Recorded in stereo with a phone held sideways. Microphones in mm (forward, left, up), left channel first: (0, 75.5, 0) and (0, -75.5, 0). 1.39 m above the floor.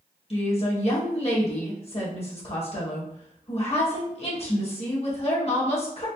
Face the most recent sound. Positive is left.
turn(degrees=45)  # may be behind; listen again after turning